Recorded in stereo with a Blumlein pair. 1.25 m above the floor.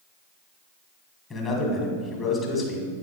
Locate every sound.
1.3 s a man speaking: 25° left, 1.4 m